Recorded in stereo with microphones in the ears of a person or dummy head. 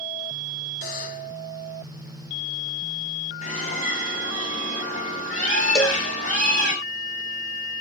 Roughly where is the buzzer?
Left.